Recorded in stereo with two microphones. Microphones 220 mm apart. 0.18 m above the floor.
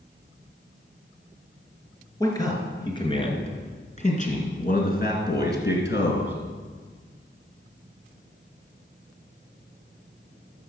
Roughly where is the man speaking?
Centre.